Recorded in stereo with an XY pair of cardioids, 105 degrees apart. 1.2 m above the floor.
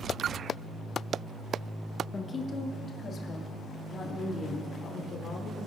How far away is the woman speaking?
About 1.4 m.